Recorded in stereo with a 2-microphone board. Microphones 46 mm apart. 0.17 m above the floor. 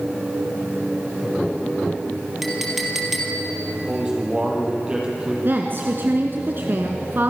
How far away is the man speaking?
About 6.5 m.